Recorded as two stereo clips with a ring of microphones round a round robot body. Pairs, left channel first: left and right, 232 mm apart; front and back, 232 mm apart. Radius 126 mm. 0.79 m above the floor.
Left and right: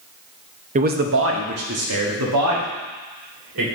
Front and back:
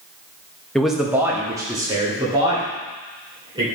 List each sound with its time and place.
0.8 s a man speaking: 85° right, 0.5 m; by 3.7 s 105° right, 2.5 m